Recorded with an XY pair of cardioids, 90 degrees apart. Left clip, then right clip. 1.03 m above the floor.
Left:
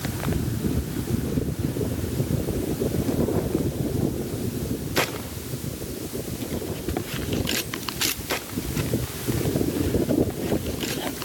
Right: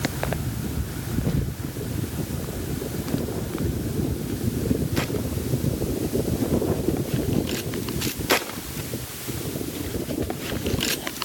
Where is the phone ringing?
No phone ringing in this recording.